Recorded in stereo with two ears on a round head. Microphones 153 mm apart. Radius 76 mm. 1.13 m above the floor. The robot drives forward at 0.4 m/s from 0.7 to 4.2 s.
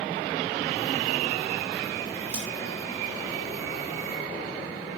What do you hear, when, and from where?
2.3 s scissors: 10° right (ahead or behind), 3 m